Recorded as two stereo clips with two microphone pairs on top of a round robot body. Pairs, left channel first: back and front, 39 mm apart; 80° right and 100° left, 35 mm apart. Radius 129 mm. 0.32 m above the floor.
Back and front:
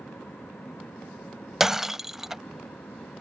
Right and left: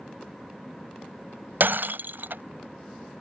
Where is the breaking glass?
80° left.